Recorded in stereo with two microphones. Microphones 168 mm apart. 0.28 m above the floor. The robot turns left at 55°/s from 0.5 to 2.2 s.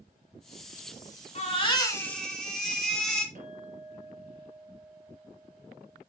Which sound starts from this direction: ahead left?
A baby crying, at 1.4 s.